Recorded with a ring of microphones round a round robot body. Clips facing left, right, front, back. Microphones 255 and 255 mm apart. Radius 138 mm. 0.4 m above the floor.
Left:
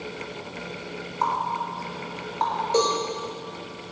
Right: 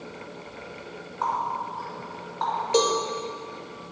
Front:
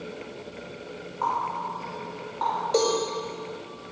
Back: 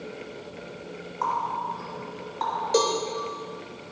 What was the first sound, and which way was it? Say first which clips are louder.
A running tap: even, even; 120° left.